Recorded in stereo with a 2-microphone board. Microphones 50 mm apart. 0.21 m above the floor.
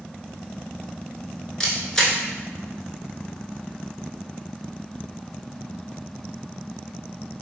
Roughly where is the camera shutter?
Centre.